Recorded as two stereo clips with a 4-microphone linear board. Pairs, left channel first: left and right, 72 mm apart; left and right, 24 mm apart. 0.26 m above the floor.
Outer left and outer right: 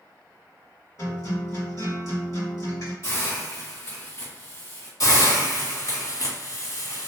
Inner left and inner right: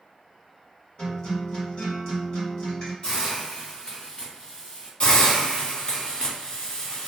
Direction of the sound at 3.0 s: 45° left (ahead or behind).